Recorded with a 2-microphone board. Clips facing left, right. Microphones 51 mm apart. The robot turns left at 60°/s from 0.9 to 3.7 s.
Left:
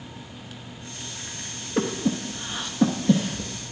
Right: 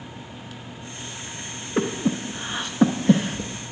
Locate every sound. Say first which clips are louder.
1.8 s breathing: right 1 dB; 15° right (ahead or behind), 0.8 m; by 3.7 s 20° right (ahead or behind), 0.8 m